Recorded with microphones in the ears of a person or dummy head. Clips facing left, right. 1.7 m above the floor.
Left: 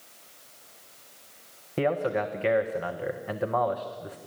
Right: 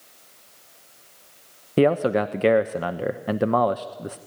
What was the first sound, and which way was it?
A man speaking, 50° right (ahead or behind).